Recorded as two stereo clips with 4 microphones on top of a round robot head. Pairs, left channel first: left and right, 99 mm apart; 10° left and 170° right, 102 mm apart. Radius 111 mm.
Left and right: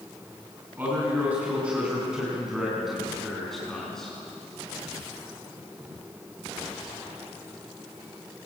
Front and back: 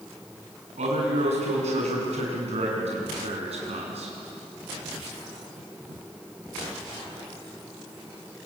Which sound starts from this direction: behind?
A man speaking, at 0.8 s.